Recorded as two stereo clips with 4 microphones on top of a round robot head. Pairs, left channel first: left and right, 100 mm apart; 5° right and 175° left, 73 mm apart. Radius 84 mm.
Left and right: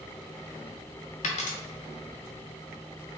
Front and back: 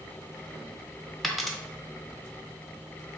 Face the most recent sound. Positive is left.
turn(degrees=85)